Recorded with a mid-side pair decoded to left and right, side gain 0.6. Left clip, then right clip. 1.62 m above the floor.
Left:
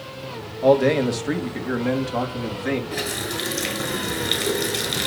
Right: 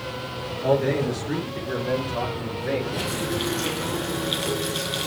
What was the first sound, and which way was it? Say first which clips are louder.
A man speaking: left 5 dB; 60° left.